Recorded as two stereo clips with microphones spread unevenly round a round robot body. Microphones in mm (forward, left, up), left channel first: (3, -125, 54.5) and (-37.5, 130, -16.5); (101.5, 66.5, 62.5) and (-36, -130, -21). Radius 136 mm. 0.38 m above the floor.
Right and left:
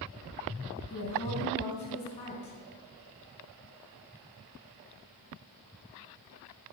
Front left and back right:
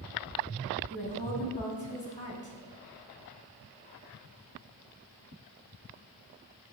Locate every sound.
0.9 s a woman speaking: 10° right, 3.5 m